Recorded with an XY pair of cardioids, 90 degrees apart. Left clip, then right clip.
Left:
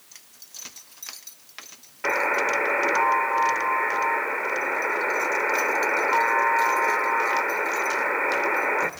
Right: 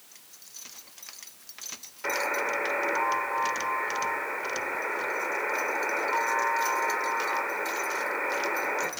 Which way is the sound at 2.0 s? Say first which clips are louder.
Left 6 dB; 50° left.